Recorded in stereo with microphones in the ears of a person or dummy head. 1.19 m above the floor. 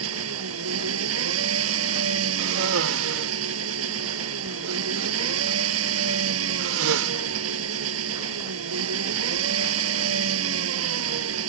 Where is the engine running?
90° right.